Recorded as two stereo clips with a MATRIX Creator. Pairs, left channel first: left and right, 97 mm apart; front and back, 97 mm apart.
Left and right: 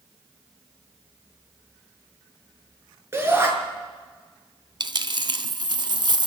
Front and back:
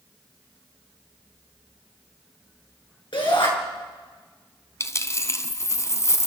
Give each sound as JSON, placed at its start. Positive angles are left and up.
{"t": 3.1, "sound": "a shout", "azimuth_deg": -25, "distance_m": 6.5}
{"t": 4.8, "sound": "a dropped coin", "azimuth_deg": -55, "distance_m": 1.0}